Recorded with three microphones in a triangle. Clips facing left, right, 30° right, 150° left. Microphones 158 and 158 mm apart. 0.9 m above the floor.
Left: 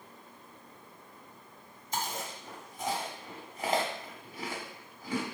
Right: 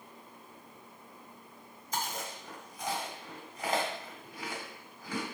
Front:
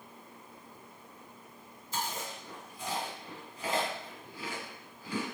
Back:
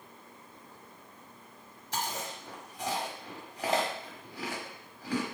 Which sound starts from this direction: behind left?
Chewing, at 1.9 s.